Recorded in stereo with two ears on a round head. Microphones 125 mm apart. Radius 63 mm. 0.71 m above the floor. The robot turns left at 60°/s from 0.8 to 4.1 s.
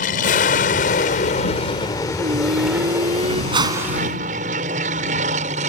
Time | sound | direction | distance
0.0 | an aircraft | 65° left (ahead or behind) | ?
2.2 | singing | 60° right | ?
3.5 | a whoosh | 35° right (ahead or behind) | ?